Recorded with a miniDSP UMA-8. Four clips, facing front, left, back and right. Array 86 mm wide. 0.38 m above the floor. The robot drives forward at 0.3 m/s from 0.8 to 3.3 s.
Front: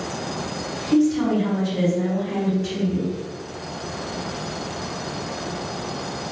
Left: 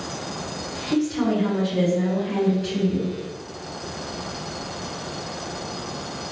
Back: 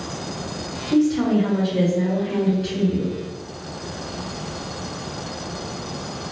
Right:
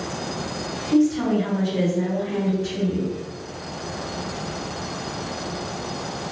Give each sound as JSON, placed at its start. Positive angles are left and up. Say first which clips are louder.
{"t": 0.9, "sound": "a woman speaking", "louder": "right 3 dB, even", "azimuth_deg": 130, "distance_m": 1.4}